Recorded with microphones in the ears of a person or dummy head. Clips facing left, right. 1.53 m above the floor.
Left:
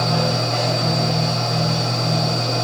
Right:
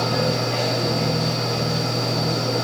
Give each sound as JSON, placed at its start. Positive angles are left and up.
{"t": 0.0, "sound": "a machine running", "side_deg": -50, "distance_m": 1.7}